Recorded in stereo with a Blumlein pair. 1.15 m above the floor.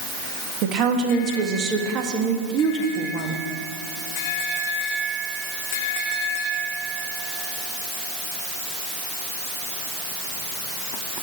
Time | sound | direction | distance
0.6 | a woman speaking | 30° right | 1.6 m